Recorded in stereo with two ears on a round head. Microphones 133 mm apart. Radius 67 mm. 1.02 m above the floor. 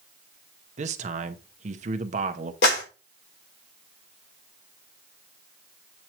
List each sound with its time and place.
0.8 s a man speaking: 50° right (ahead or behind), 1.0 m
2.6 s a clap: 85° left, 3 m